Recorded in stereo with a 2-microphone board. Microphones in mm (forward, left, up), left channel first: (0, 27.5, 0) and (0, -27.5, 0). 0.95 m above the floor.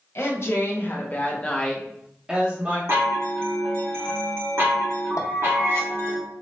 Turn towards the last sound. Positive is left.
turn(degrees=75)  # may be behind; listen again after turning